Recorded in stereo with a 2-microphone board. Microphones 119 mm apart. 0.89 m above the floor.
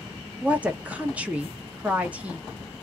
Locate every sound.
0.4 s a woman speaking: 10° right (ahead or behind), 0.6 m